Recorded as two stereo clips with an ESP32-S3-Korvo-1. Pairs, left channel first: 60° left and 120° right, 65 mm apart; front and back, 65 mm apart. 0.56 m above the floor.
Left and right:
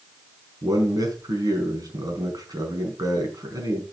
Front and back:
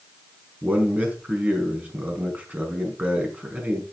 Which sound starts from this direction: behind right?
A man speaking, at 0.6 s.